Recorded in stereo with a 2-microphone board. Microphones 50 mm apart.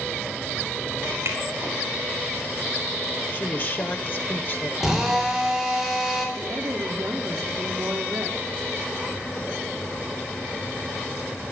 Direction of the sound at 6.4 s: 60° right (ahead or behind).